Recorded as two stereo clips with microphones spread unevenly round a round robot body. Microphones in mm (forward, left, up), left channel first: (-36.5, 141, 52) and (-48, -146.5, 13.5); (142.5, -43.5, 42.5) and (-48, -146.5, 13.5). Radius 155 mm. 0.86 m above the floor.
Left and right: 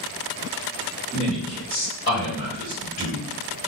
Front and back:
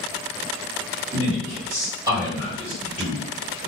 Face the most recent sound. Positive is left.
turn(degrees=110)